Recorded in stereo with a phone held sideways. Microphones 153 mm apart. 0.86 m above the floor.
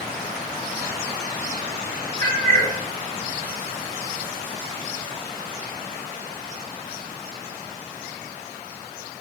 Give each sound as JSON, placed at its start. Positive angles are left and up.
{"t": 2.2, "sound": "a cat meowing", "side_deg": -55, "distance_m": 1.7}